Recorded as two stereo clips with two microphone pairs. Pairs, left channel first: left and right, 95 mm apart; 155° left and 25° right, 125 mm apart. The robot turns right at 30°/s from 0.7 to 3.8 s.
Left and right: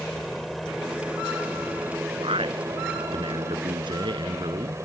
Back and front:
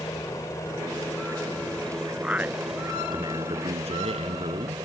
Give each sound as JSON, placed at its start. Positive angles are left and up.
{"t": 0.0, "sound": "a helicopter", "azimuth_deg": 175}
{"t": 2.2, "sound": "a man speaking", "azimuth_deg": -110}